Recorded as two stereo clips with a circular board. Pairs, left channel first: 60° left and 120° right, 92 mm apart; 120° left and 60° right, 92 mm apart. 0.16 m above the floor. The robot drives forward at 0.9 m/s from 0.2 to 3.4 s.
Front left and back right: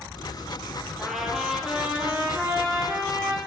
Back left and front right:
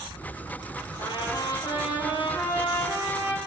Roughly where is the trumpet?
Behind left.